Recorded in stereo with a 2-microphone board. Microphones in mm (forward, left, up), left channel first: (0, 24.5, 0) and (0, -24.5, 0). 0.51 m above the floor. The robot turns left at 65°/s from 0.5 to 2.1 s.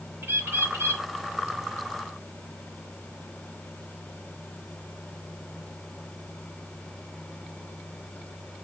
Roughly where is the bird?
Ahead right.